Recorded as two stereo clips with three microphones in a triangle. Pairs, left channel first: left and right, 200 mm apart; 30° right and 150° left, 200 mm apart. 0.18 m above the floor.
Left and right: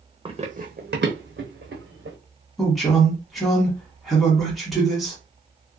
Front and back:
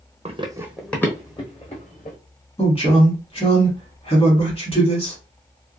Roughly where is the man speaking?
Ahead.